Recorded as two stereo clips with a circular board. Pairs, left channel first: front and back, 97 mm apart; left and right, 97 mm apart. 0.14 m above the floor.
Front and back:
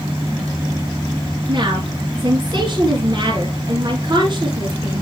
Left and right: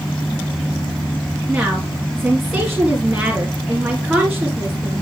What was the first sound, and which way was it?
A woman speaking, 175° right.